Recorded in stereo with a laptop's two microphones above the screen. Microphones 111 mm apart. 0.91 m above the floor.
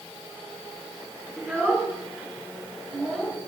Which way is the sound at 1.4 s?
10° left (ahead or behind).